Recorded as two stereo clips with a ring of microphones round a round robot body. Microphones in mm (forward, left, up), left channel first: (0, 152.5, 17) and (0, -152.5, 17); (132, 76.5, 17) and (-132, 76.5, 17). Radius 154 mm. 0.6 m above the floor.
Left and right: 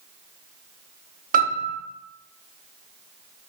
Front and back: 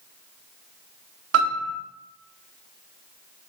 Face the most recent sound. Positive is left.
turn(degrees=-150)